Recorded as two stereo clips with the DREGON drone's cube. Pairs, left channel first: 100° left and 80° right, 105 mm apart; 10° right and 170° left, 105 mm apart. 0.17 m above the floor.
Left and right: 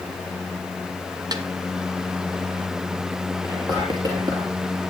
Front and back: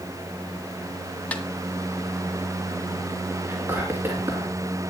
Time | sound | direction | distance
1.3 | a snare drum | 80° right | 2 m
3.4 | whispering | 125° right | 3 m